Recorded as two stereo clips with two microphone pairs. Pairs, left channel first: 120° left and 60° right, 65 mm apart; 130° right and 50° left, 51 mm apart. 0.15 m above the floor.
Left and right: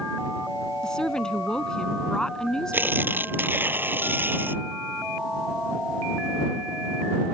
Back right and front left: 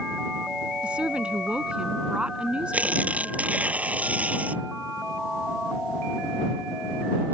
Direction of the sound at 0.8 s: 60° left.